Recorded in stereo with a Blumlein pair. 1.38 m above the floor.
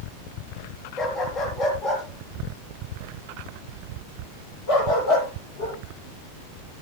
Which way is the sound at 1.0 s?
30° left.